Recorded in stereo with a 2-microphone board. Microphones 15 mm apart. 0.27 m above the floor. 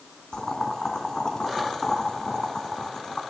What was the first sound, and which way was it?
Boiling, 60° left (ahead or behind).